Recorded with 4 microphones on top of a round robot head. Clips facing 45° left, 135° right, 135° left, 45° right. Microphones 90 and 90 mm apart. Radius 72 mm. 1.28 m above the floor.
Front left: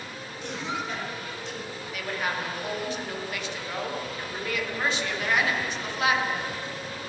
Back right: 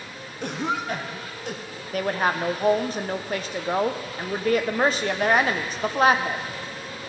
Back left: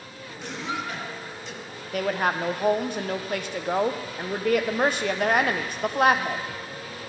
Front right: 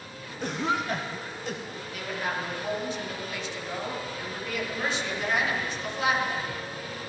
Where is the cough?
95° right, 1.3 m.